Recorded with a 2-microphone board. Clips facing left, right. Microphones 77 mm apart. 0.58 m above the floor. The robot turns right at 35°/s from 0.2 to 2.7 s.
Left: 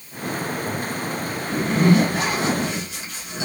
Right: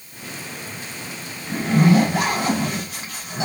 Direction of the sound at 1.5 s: 105° right.